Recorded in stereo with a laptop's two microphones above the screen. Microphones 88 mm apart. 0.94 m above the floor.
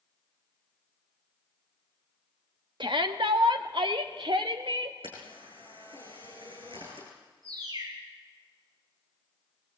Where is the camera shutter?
75° right (ahead or behind), 8.5 m.